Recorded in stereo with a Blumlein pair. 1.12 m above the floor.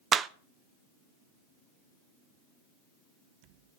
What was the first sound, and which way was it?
A clap, 25° right.